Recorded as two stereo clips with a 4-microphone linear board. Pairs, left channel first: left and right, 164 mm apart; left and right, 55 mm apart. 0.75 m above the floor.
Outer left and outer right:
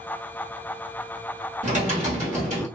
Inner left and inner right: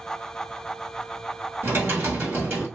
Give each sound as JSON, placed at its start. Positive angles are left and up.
{"t": 1.6, "sound": "typing on a keyboard", "side_deg": -45, "distance_m": 1.5}